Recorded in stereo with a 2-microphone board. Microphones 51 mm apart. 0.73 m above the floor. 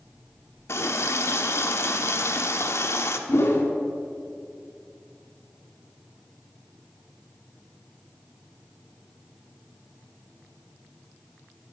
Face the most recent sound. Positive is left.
turn(degrees=60)  # may be behind; listen again after turning